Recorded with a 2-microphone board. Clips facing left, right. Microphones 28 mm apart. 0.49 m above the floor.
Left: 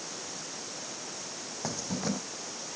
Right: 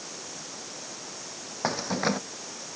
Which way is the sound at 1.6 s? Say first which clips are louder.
Right 7 dB; 45° right (ahead or behind).